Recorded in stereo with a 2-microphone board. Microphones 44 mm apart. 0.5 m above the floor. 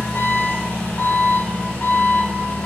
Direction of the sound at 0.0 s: 40° left (ahead or behind).